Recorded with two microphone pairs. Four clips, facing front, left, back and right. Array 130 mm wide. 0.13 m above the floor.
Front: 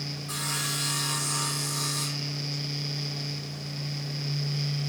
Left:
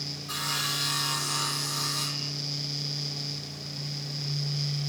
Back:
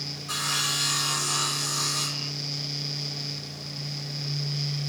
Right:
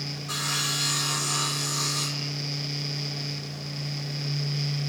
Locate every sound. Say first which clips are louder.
0.3 s sawing: right 1 dB, back 4 dB; 145° right, 1.8 m